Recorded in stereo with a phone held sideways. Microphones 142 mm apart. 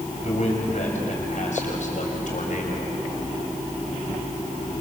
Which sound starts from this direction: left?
A man speaking, at 0.2 s.